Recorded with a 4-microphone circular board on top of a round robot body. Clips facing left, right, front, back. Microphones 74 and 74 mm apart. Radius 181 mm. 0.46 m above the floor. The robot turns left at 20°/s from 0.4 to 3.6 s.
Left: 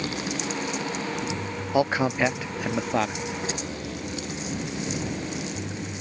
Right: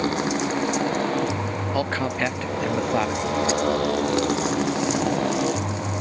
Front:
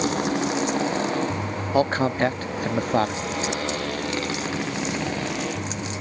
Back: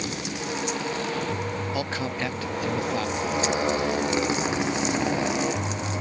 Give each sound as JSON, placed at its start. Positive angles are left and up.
{"t": 0.0, "sound": "a motorcycle", "azimuth_deg": -40}
{"t": 1.7, "sound": "a man speaking", "azimuth_deg": 20}